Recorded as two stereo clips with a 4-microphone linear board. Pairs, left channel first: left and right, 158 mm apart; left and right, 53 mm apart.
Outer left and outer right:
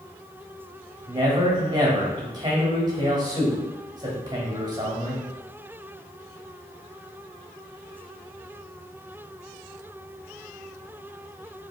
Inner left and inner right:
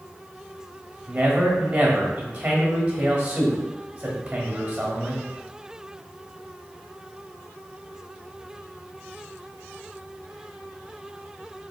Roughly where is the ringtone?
No ringtone in this recording.